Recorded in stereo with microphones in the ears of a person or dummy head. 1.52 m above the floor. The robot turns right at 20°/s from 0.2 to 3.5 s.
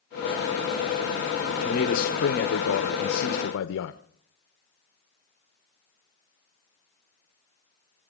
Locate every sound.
1.6 s a man speaking: 35° left, 0.9 m; by 4.0 s 75° left, 0.9 m